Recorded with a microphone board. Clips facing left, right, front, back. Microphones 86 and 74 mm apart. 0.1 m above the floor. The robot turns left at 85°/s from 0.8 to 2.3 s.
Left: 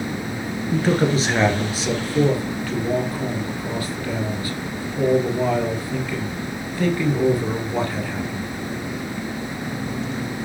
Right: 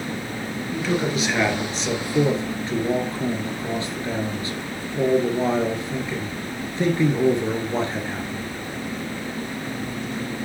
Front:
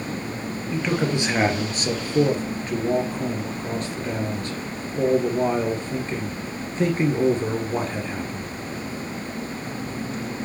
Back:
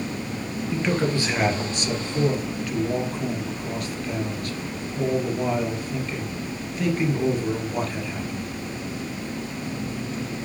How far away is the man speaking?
About 2 m.